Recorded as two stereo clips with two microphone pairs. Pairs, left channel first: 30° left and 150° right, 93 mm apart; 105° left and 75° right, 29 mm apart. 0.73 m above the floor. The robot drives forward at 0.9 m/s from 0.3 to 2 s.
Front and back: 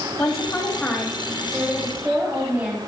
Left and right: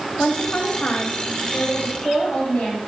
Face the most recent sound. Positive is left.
turn(degrees=145)